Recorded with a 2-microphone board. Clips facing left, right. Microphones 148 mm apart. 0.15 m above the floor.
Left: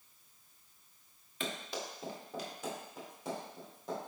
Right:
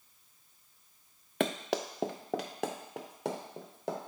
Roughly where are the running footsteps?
Right.